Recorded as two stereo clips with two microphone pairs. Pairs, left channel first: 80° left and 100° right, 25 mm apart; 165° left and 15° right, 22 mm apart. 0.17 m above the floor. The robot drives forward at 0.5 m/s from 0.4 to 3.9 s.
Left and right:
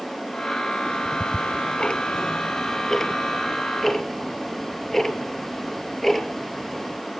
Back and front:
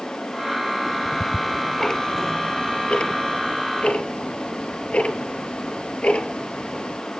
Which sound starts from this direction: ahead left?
Ticking, at 0.8 s.